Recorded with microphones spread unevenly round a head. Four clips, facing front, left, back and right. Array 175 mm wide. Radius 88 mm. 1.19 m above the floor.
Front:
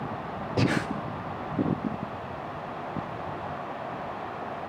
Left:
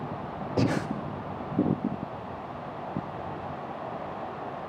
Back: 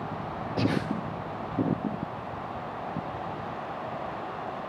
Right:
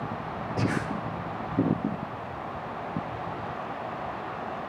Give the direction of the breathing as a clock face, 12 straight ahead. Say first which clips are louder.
Left 3 dB, front 1 dB; 10 o'clock.